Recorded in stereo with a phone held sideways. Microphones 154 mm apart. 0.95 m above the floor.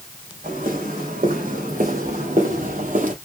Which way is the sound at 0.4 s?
75° right (ahead or behind).